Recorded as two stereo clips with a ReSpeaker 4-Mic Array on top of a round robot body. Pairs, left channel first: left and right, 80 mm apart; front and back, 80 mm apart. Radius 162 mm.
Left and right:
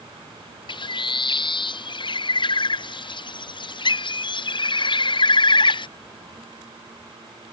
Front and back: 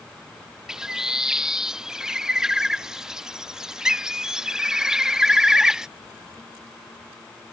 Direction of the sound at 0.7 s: 95° left.